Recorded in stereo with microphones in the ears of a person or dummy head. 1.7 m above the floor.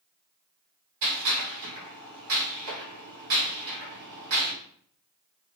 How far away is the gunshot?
About 1.5 m.